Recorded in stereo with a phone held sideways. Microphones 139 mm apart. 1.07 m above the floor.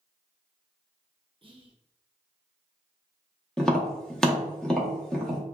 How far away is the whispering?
About 0.5 m.